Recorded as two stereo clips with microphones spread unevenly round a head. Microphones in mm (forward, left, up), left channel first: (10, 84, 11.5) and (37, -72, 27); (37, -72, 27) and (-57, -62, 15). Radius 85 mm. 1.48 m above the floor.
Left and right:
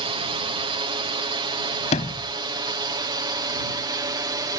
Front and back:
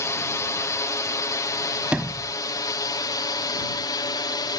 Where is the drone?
45° right; by 4.6 s 20° right.